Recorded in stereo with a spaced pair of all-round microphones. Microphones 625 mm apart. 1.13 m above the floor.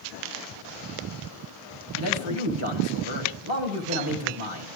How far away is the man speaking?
About 1.7 m.